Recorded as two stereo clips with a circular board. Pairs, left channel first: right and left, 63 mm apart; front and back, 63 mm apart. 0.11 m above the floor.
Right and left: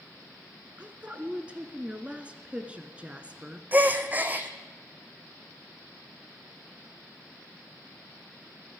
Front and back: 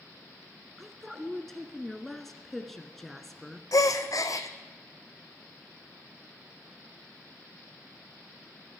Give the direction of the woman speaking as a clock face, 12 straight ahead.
9 o'clock.